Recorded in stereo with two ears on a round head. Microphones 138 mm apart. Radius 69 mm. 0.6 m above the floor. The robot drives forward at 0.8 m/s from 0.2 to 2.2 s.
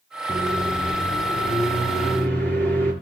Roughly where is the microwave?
Centre.